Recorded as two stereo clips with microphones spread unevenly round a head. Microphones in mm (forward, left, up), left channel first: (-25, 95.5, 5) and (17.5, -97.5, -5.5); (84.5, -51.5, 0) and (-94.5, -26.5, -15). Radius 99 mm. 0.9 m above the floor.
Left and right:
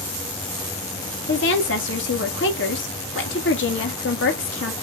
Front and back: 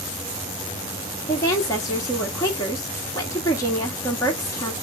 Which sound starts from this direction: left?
A woman speaking, at 1.3 s.